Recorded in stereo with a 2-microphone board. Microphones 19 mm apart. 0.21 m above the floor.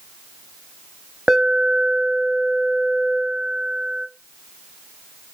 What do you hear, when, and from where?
1.3 s an alarm: 25° right (ahead or behind), 0.9 m